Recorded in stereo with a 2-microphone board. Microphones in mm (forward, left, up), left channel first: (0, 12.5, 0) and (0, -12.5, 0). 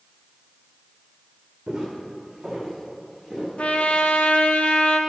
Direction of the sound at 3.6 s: 60° left (ahead or behind).